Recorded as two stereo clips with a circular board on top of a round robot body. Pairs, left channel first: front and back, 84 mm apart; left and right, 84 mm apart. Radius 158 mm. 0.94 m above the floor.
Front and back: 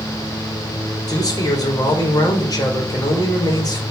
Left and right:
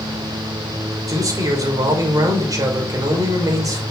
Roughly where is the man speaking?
Ahead right.